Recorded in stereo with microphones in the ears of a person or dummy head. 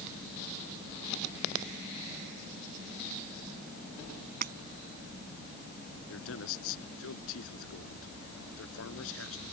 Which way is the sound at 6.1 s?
80° left.